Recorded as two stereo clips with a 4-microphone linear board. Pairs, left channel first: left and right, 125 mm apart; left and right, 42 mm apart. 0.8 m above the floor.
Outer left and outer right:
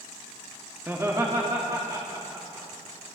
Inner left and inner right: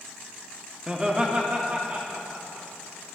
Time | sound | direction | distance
0.9 | laughter | 15° right (ahead or behind) | 0.9 m